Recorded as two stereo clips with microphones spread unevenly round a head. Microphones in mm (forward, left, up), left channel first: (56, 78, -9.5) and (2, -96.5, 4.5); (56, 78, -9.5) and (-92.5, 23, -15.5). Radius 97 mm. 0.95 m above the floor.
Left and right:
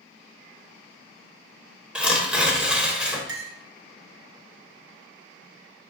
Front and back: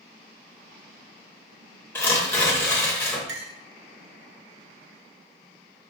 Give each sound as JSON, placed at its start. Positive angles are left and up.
{"t": 1.9, "sound": "tearing paper", "azimuth_deg": -35, "distance_m": 0.7}
{"t": 3.3, "sound": "a clink", "azimuth_deg": -135, "distance_m": 0.6}